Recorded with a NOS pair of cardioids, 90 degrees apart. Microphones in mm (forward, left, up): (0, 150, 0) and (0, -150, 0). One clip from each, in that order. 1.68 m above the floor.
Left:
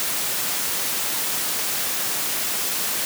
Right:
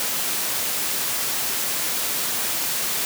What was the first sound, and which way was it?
Only background noise.